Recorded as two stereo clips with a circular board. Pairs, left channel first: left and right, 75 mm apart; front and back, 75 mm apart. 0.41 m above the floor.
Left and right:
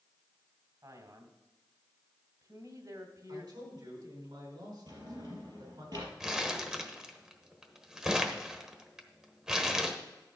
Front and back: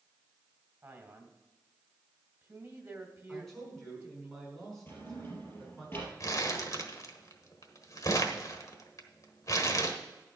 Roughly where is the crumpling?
Ahead.